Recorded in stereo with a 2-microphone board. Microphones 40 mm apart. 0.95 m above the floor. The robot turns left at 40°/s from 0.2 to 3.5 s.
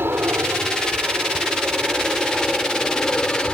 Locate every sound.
0.0 s an aircraft: 80° right; by 3.5 s 145° left